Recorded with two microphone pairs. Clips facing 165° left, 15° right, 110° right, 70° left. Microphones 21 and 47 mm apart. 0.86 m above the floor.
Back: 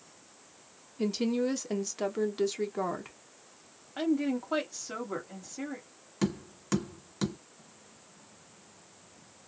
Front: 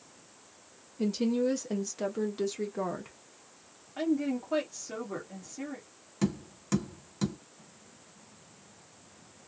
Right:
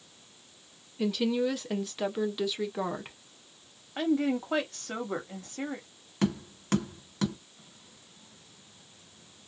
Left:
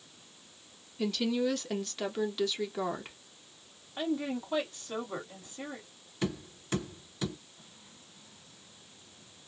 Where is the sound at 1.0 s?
165° right, 0.5 m.